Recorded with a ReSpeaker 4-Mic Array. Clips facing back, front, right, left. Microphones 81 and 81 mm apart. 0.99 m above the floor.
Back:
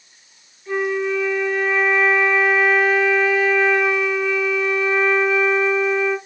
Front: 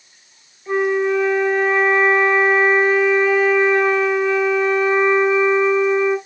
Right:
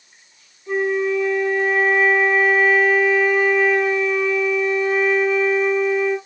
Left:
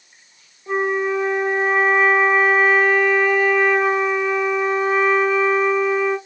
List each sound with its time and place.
0.7 s a flute: 55° left, 1.1 m